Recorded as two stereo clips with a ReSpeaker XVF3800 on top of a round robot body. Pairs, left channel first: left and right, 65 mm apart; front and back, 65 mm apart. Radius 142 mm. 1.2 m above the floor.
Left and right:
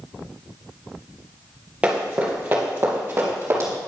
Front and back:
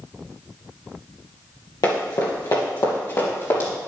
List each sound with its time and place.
1.8 s running footsteps: 20° right, 2 m; by 3.7 s 40° right, 3 m